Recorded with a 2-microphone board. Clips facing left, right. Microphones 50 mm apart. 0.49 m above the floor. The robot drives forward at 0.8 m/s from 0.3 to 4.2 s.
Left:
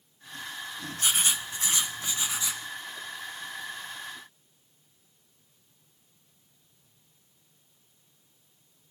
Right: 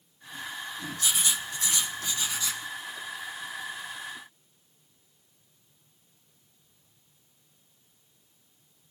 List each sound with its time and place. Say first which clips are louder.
1.0 s writing: left 2 dB; 45° left (ahead or behind), 1.0 m; by 2.6 s 20° left (ahead or behind), 2 m